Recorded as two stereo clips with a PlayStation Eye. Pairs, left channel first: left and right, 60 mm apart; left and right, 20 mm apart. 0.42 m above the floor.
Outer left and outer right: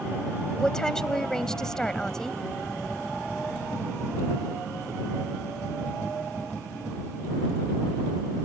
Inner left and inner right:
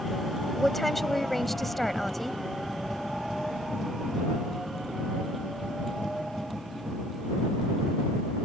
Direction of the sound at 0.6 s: 10° left (ahead or behind).